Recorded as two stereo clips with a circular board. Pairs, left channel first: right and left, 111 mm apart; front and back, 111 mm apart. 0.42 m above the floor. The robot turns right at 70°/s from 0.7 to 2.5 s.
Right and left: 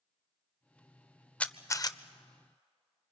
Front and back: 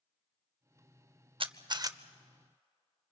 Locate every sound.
1.4 s a camera shutter: 165° right, 0.5 m; by 2.0 s 125° right, 0.5 m